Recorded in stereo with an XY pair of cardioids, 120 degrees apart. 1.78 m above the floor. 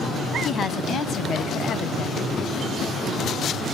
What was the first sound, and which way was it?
A woman speaking, 35° left.